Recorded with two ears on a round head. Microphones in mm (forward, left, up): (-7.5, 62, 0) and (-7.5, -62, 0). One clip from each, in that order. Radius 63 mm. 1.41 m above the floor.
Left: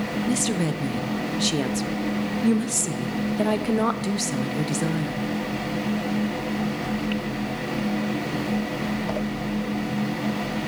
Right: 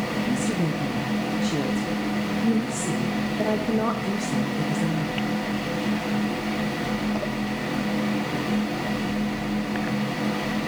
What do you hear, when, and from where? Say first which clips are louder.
0.3 s a woman speaking: left 1 dB; 60° left (ahead or behind), 0.7 m